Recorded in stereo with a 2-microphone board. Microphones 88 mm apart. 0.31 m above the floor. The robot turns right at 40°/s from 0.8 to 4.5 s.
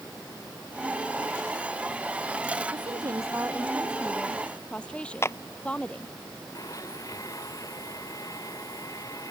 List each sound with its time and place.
2.7 s a woman speaking: 60° right; by 6.1 s 10° left
5.2 s a clap: 30° left (ahead or behind)
6.5 s a blender: 40° left (ahead or behind)